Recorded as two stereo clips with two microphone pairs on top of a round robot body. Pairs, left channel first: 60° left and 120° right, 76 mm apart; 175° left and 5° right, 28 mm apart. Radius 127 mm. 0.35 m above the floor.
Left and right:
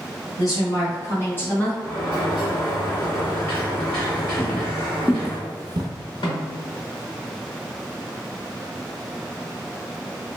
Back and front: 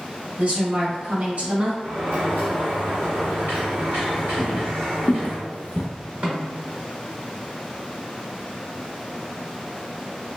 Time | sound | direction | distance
0.4 | a woman speaking | 25° left | 1.7 m
1.8 | a sliding door | 10° right | 1.7 m
4.4 | footsteps | 120° left | 0.7 m
6.2 | a snare drum | 40° left | 1.3 m